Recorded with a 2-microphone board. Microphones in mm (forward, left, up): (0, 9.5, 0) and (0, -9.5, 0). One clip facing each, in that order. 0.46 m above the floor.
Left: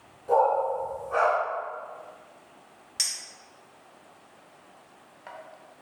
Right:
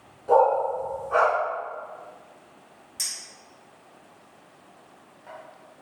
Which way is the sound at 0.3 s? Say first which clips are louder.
Right 3 dB; 20° right (ahead or behind).